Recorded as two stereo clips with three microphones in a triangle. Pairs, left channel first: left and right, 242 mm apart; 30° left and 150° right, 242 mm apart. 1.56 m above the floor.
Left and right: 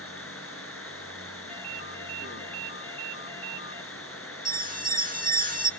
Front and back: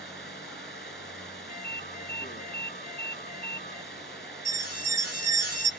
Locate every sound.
0.0 s running water: 75° left, 3.5 m
1.5 s a ringtone: 150° right, 1.2 m
4.5 s an alarm: 145° right, 2.5 m